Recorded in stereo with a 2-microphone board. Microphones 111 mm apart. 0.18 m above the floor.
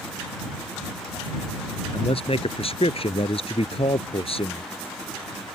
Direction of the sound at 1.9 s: 60° left (ahead or behind).